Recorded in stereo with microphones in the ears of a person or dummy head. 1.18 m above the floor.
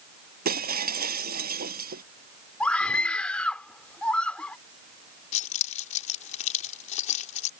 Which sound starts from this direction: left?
Keys jangling, at 5.3 s.